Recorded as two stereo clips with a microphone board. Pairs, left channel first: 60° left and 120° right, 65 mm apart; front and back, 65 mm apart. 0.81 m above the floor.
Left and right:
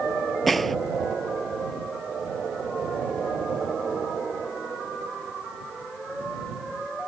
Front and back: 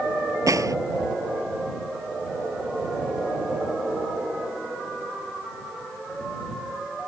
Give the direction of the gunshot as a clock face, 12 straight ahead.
7 o'clock.